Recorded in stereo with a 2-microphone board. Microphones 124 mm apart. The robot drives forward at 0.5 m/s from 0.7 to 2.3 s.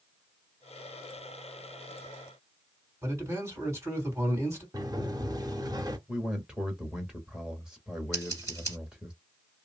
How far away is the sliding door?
About 0.7 m.